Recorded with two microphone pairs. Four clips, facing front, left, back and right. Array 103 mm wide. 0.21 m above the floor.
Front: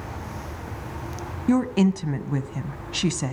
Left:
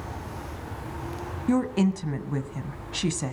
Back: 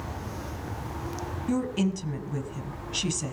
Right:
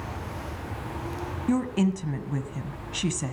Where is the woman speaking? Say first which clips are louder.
Left 1 dB, front 7 dB; 15° left, 1.2 m.